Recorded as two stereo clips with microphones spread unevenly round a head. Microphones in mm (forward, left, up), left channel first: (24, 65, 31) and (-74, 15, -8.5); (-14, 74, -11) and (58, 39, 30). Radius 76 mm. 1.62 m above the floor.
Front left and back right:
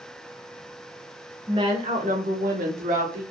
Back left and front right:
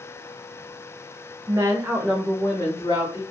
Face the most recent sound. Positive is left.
turn(degrees=-140)